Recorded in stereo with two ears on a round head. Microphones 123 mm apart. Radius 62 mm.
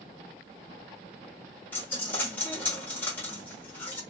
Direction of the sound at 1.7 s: 15° left (ahead or behind).